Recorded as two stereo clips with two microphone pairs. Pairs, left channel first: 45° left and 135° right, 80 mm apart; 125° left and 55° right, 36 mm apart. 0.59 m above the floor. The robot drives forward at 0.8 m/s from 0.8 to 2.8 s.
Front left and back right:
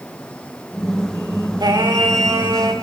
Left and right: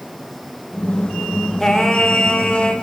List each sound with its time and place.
1.6 s singing: 160° right, 1.9 m; by 2.7 s 170° right, 2.5 m